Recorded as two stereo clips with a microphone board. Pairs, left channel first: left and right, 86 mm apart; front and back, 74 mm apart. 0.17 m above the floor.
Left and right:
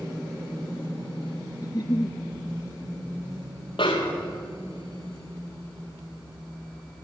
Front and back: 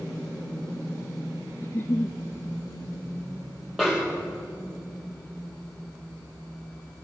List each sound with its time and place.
1.6 s a giggle: 55° left, 1.0 m
3.8 s a snare drum: 90° left, 2.5 m